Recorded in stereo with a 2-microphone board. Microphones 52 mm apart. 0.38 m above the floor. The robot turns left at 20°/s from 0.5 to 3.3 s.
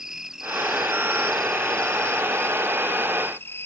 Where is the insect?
170° right; by 3.7 s 135° left.